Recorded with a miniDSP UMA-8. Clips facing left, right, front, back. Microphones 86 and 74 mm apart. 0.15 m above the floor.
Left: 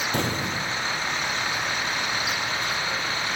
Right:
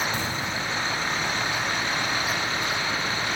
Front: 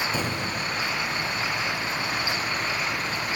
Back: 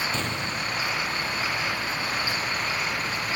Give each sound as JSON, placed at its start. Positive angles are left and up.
{"t": 0.1, "sound": "an explosion", "azimuth_deg": 75, "distance_m": 0.9}